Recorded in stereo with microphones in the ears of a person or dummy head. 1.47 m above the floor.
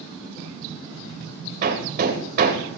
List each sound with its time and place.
1.6 s hammering: 50° right (ahead or behind), 4 m